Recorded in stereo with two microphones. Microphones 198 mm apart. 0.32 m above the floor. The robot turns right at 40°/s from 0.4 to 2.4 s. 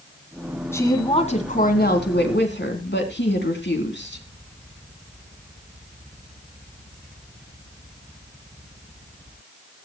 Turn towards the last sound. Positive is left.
turn(degrees=80)